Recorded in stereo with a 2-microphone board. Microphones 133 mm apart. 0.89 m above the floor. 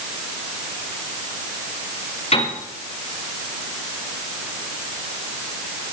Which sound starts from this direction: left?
A piano, at 2.3 s.